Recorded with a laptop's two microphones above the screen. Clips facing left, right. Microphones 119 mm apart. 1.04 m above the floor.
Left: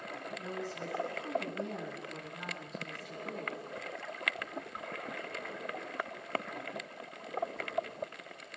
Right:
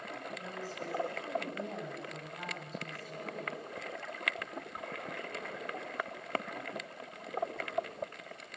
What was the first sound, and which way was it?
A woman speaking, 35° right (ahead or behind).